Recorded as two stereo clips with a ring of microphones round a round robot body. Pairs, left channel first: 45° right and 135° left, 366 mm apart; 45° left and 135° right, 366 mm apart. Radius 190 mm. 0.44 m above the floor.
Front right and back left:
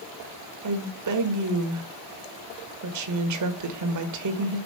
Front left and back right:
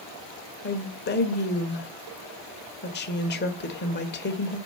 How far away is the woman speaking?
About 1.5 m.